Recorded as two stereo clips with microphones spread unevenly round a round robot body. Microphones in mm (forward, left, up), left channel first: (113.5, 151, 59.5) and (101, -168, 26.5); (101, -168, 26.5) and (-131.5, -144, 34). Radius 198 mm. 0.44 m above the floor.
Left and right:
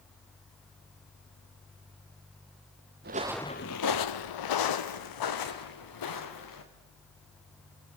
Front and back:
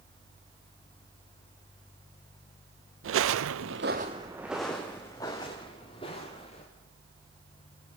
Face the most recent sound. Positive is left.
turn(degrees=70)